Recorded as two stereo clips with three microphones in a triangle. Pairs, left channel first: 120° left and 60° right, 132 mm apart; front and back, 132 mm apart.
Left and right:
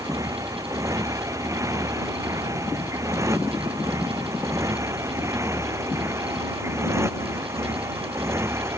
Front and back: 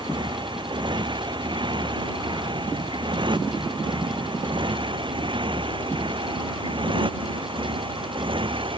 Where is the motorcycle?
125° right; by 8.8 s 130° right.